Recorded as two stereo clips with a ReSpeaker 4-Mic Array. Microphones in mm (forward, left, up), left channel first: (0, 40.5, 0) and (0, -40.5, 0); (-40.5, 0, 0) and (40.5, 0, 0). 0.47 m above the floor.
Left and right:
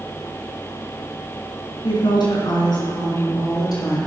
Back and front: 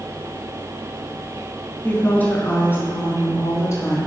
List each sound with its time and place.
1.8 s a woman speaking: 110° left, 4.5 m; by 4.0 s 125° left, 5.5 m